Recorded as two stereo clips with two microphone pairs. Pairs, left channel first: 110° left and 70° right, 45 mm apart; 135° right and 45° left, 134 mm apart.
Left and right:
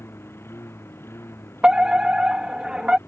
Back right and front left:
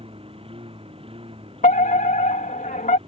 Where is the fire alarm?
135° right.